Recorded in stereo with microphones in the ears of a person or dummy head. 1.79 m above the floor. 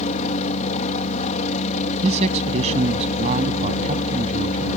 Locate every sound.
0.0 s a helicopter: 40° left (ahead or behind)
2.0 s a man speaking: 40° right (ahead or behind)